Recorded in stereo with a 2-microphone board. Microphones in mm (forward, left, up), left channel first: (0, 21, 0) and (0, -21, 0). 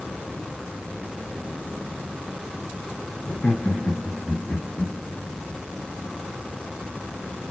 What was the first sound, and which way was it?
Laughter, 45° left (ahead or behind).